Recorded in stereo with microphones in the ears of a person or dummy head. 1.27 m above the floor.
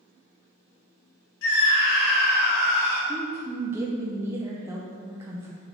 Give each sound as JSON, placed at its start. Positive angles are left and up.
{"t": 1.4, "sound": "a scream", "side_deg": 85, "distance_m": 2.0}
{"t": 3.1, "sound": "a woman speaking", "side_deg": -10, "distance_m": 0.7}